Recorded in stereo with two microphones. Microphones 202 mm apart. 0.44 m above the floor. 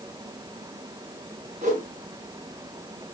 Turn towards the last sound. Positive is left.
turn(degrees=-35)  # may be behind; listen again after turning